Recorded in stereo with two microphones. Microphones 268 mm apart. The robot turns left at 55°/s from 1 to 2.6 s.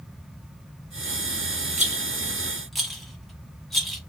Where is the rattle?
25° right (ahead or behind), 0.8 m; by 4.0 s centre (ahead or behind), 0.8 m.